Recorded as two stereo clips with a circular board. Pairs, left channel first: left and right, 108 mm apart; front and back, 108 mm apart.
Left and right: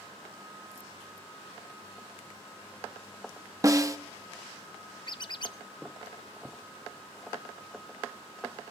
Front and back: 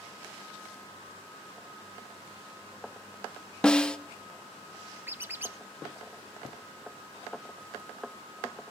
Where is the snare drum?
75° right, 0.7 m.